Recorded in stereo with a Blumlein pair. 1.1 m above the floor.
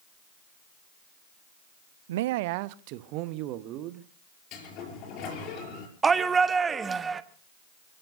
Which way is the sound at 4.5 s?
40° left.